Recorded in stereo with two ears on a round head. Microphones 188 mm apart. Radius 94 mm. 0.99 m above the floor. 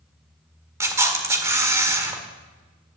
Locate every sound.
0.8 s a camera shutter: 15° right (ahead or behind), 1.7 m